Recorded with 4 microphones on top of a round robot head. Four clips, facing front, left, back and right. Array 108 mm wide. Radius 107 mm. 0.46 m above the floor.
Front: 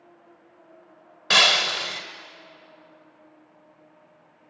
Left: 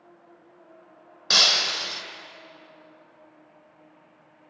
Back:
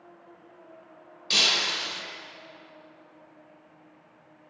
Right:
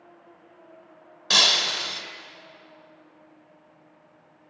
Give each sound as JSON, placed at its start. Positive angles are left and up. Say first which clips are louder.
{"t": 1.3, "sound": "breaking glass", "louder": "right 1 dB, front 8 dB", "azimuth_deg": 20, "distance_m": 1.7}